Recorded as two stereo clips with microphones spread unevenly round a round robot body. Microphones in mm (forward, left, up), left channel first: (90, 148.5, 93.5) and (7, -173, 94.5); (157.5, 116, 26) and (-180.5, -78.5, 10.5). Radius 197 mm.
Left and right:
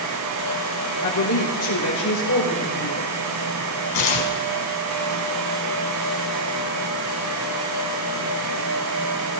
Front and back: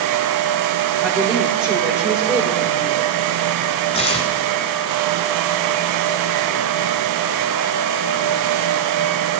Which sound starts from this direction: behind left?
A woman speaking, at 1.0 s.